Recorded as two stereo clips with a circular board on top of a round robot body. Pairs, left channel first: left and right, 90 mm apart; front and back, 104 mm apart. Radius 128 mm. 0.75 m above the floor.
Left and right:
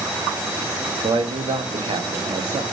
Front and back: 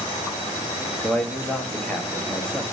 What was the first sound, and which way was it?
A man speaking, 80° right.